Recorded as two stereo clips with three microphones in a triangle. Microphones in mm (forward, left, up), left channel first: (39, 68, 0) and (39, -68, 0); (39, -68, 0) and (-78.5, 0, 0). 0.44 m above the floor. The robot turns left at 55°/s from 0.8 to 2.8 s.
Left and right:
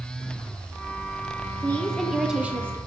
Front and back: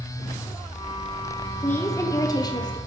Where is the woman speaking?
25° left, 0.8 m; by 2.8 s 35° right, 0.8 m.